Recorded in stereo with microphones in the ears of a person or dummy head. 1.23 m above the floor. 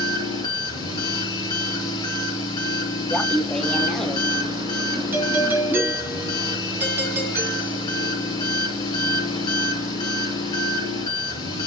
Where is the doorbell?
15° right (ahead or behind), 4 m.